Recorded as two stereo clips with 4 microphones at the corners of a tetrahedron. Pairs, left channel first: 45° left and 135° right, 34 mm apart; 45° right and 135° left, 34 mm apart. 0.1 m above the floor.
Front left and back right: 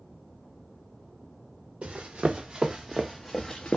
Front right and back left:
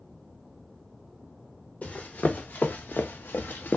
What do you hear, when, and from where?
1.8 s running footsteps: 90° right, 1.1 m; by 3.8 s 20° right, 0.6 m